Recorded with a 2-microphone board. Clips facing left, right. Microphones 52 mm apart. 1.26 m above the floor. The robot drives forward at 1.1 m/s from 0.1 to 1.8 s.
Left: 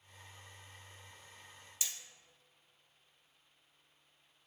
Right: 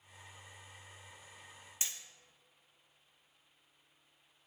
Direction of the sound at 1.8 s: 35° right (ahead or behind).